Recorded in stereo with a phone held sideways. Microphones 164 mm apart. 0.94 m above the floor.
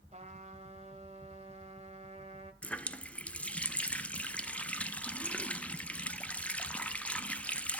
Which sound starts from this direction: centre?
A running tap, at 2.6 s.